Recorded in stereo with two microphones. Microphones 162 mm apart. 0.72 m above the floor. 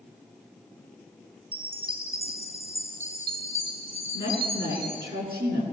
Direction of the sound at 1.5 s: 60° right (ahead or behind).